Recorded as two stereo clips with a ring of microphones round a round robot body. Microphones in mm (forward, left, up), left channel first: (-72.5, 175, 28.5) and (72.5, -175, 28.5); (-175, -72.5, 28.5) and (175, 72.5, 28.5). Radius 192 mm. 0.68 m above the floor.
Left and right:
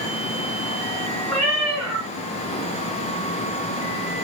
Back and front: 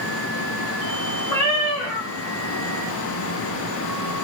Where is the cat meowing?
160° right, 1.2 m.